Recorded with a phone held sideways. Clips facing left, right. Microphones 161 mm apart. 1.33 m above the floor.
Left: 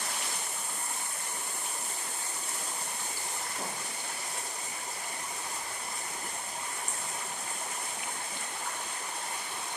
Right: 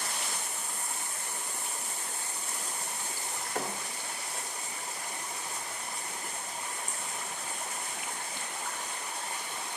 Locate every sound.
3.5 s a thud: 70° right (ahead or behind), 2.0 m